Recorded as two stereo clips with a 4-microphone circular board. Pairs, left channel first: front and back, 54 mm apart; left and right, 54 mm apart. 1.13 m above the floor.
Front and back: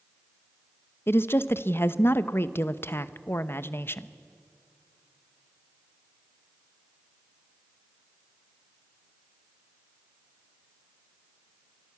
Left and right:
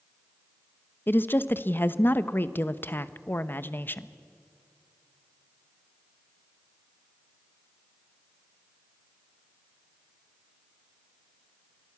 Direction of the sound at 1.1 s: 40° left.